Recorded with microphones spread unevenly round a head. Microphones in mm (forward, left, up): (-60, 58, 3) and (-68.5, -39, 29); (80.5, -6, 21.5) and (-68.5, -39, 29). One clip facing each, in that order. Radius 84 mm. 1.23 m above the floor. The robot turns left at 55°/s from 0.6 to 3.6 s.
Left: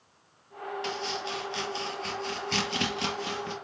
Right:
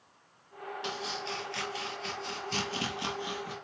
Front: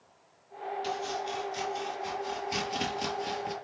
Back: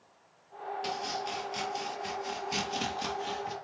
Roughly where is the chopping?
Behind.